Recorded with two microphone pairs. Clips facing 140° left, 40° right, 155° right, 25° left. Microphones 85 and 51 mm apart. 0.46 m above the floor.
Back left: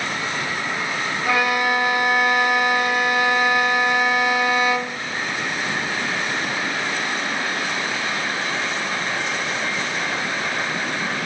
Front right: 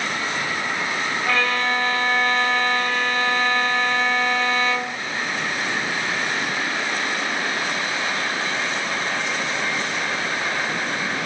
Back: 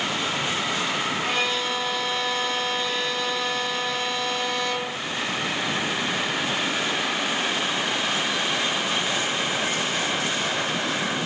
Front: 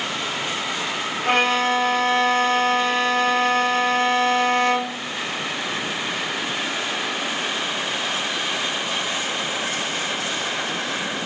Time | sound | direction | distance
1.2 | a violin | 65° left | 2 m